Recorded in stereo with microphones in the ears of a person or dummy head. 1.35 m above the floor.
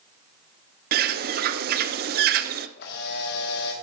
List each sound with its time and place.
0.9 s a bird: 50° right (ahead or behind), 0.6 m
2.8 s a camera shutter: 60° left (ahead or behind), 1.7 m